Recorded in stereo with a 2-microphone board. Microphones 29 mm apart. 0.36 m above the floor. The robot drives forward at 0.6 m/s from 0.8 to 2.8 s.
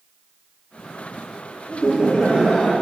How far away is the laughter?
About 1.0 m.